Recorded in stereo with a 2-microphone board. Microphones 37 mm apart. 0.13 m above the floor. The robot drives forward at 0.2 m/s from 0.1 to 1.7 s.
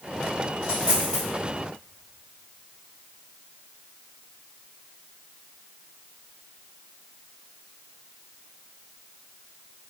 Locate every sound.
0.6 s a dropped coin: 25° right (ahead or behind), 1.4 m